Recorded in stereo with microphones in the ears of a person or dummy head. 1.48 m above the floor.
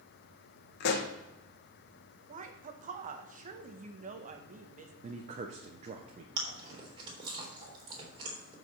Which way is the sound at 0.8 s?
60° left (ahead or behind).